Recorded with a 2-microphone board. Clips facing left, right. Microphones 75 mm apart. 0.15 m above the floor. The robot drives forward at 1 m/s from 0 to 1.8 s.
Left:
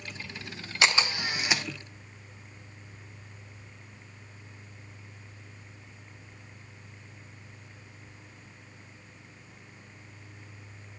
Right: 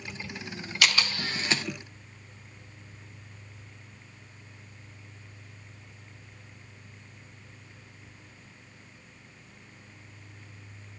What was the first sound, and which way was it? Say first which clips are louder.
A camera shutter: left 2 dB; 25° left (ahead or behind).